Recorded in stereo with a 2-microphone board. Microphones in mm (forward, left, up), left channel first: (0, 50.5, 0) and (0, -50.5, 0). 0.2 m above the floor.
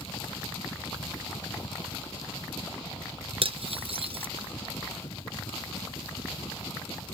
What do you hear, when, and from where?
0.0 s a helicopter: 35° left (ahead or behind); by 7.1 s 45° left (ahead or behind)
3.4 s cutlery clinking: 70° right (ahead or behind)